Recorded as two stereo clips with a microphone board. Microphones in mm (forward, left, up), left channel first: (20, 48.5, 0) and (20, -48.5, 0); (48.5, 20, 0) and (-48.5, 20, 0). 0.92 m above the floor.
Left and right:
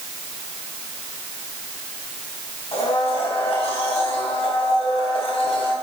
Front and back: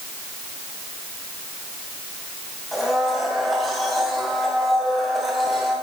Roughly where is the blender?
Left.